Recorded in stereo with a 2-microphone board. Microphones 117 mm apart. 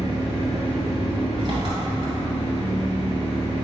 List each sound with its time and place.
0.0 s an engine running: 45° right (ahead or behind), 1.9 m